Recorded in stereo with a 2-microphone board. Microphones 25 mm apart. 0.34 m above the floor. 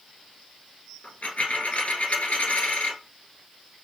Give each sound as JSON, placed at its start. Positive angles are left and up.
{"t": 1.0, "sound": "a dropped coin", "side_deg": 75, "distance_m": 1.2}